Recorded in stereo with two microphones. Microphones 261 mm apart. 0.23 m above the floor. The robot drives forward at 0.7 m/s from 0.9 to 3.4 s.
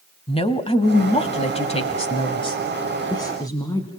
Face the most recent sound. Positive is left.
turn(degrees=15)  # may be behind; listen again after turning